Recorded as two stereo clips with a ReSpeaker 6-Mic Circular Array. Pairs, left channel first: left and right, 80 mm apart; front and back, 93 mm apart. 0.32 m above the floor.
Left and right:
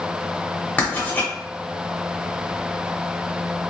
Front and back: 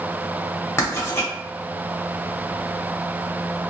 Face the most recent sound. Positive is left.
turn(degrees=40)